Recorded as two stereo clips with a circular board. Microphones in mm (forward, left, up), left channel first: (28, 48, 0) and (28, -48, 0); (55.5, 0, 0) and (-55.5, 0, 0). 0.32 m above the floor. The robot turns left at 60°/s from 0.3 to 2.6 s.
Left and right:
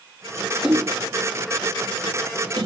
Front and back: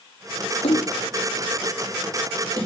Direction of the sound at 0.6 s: 10° right.